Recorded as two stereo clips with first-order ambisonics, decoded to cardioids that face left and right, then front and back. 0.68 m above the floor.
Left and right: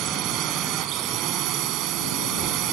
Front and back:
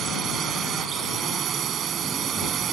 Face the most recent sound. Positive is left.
turn(degrees=-125)